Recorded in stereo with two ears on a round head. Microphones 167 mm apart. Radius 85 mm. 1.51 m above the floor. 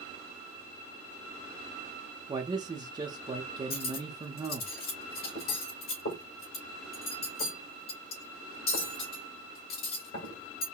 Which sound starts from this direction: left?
Cutlery clinking, at 3.7 s.